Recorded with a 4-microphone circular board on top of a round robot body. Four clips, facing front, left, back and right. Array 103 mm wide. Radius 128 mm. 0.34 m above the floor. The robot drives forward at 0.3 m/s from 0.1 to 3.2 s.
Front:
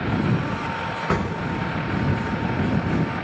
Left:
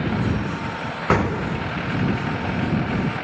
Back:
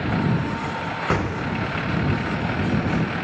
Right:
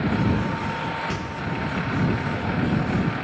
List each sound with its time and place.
1.1 s an explosion: 95° left, 0.7 m; by 1.7 s 110° left, 0.7 m